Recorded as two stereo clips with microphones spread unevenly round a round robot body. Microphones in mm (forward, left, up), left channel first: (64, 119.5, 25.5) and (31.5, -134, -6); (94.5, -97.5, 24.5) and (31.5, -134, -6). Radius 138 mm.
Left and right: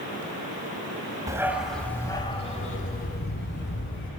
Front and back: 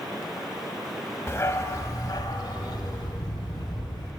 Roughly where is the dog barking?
Ahead.